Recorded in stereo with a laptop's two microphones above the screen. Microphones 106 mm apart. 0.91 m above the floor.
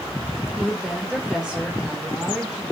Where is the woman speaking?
5° right (ahead or behind), 1.4 m.